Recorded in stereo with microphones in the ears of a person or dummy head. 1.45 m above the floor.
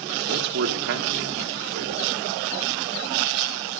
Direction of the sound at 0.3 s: 60° right (ahead or behind).